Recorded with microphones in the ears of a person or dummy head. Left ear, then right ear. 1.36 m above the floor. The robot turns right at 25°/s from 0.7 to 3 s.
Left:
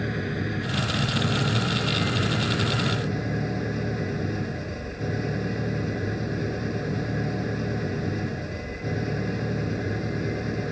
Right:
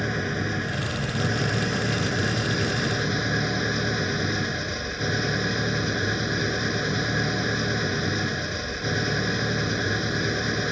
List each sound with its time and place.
0.0 s an engine running: 140° right; by 10.7 s 85° right